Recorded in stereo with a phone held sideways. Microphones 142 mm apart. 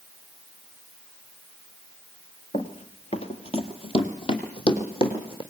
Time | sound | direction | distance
2.5 | running footsteps | 40° left (ahead or behind) | 1.3 m